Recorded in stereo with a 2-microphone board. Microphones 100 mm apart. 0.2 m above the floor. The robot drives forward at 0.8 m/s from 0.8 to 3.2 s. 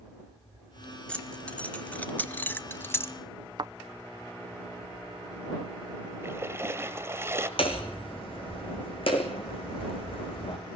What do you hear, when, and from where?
1.1 s keys jangling: 10° left (ahead or behind), 1.8 m; by 3.1 s 20° left (ahead or behind), 0.8 m
3.6 s a thud: 45° right (ahead or behind), 0.5 m
6.2 s a splash: 25° right (ahead or behind), 1.9 m
7.6 s hammering: 65° left (ahead or behind), 3 m